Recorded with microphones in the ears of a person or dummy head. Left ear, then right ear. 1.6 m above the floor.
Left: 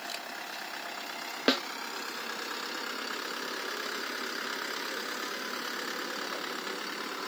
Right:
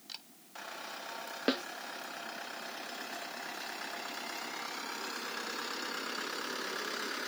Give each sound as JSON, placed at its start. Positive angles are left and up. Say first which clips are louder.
{"t": 0.1, "sound": "a camera shutter", "louder": "left 3 dB", "side_deg": 20}
{"t": 1.5, "sound": "a snare drum", "louder": "left 6 dB", "side_deg": 15}